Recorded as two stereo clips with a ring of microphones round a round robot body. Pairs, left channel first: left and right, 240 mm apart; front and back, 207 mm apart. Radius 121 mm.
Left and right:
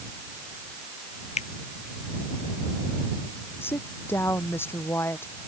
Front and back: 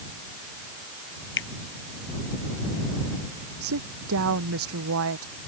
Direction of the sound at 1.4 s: 25° left.